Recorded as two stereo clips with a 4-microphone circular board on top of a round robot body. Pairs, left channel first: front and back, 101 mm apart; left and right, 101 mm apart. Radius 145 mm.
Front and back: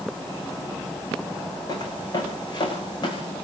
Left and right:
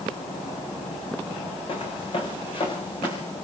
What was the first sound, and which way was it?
Footsteps, 50° left.